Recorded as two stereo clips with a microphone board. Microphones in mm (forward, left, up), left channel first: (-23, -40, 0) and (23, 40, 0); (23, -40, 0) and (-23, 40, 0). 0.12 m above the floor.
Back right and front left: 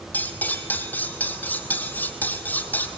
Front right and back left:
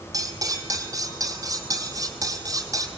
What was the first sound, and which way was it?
Cutlery clinking, 170° left.